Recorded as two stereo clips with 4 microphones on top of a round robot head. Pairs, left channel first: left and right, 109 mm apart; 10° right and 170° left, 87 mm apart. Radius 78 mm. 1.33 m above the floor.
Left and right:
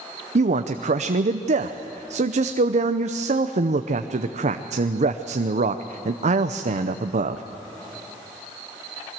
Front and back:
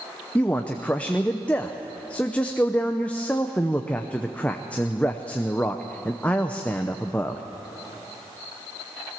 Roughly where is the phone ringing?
No phone ringing in this recording.